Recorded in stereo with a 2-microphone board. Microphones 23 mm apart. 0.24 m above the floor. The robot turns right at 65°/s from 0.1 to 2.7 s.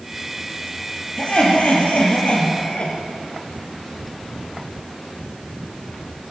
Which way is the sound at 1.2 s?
40° left.